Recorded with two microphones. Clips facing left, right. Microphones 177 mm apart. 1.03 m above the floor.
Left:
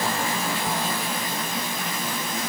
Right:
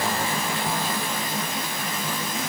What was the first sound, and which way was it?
Only background noise.